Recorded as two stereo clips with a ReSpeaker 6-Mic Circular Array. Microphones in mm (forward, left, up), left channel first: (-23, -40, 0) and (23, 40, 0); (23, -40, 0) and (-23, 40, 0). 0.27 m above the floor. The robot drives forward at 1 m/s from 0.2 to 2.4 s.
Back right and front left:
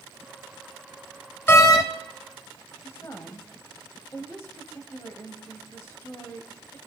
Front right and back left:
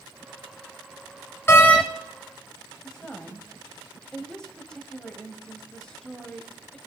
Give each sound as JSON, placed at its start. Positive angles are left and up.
{"t": 1.5, "sound": "a door slam", "azimuth_deg": -85, "distance_m": 0.7}
{"t": 2.8, "sound": "a woman speaking", "azimuth_deg": -130, "distance_m": 1.3}